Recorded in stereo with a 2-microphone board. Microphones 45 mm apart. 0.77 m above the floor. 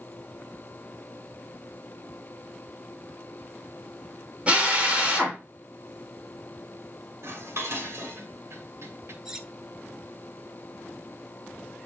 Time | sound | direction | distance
4.5 | a drill | 25° right (ahead or behind) | 3 m
7.2 | dishes clattering | 70° right (ahead or behind) | 2 m
9.2 | cutlery clinking | 10° right (ahead or behind) | 1.1 m